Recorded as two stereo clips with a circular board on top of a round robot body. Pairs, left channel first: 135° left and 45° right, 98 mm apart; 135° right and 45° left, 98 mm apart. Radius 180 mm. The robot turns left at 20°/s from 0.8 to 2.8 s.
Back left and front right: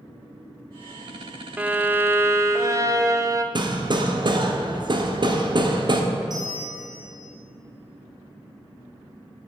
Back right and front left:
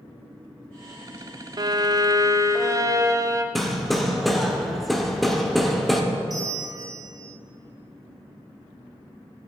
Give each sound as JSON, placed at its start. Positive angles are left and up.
{"t": 1.6, "sound": "a violin", "azimuth_deg": 25, "distance_m": 0.9}
{"t": 3.5, "sound": "hammering", "azimuth_deg": -45, "distance_m": 1.2}
{"t": 6.3, "sound": "a bell", "azimuth_deg": 0, "distance_m": 1.4}